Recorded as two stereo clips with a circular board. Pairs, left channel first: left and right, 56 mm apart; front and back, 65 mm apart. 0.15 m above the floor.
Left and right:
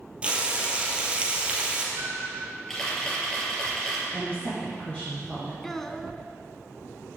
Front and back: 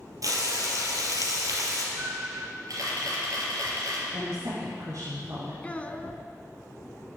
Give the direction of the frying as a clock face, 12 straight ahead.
5 o'clock.